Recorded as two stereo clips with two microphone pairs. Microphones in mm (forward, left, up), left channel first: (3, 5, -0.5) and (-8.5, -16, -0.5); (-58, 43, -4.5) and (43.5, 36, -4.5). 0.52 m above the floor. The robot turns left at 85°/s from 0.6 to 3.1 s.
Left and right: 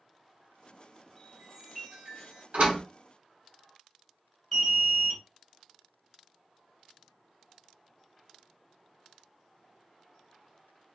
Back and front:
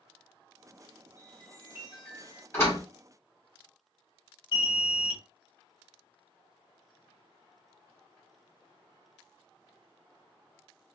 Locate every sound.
1.2 s a chime: 25° right, 2 m; by 2.4 s 135° right, 2 m
2.5 s a door slam: 120° right, 2.5 m; by 2.8 s 145° right, 2.5 m
4.5 s an alarm: 155° left, 2.5 m